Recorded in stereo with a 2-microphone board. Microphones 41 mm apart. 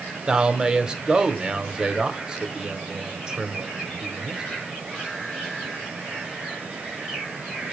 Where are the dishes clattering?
No dishes clattering in this recording.